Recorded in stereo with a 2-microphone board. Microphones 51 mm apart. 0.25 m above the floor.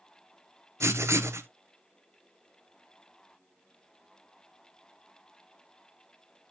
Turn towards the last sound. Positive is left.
turn(degrees=-70)  # may be behind; listen again after turning